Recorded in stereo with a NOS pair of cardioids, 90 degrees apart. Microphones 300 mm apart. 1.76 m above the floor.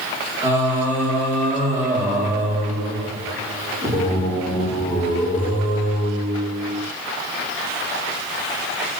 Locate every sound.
0.4 s singing: 5° right, 1.5 m